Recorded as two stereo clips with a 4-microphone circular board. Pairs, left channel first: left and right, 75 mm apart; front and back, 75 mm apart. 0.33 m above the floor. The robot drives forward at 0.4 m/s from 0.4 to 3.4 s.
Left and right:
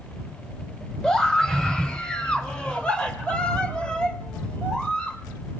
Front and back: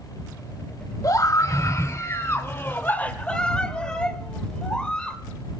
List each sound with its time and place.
1.0 s a scream: 10° left, 1.4 m; by 5.2 s 50° left, 0.9 m